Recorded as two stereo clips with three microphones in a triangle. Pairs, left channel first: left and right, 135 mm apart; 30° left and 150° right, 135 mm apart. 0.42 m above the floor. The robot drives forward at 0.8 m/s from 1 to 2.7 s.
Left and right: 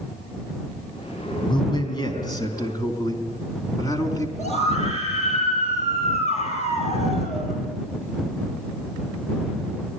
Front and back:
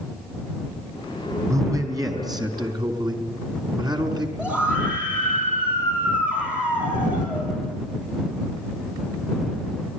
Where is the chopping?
No chopping in this recording.